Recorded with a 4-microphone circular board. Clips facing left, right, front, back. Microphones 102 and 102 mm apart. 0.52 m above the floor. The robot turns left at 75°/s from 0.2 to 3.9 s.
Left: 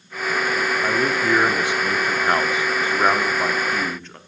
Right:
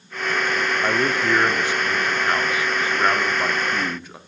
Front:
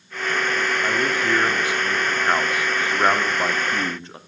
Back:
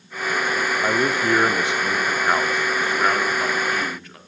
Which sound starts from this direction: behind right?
A man speaking, at 0.8 s.